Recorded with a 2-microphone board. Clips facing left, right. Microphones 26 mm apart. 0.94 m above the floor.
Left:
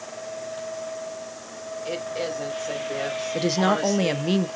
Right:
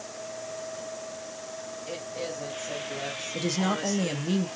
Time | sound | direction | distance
1.9 | a woman speaking | 45° left (ahead or behind) | 5.5 m
3.3 | a woman speaking | 35° left (ahead or behind) | 1.0 m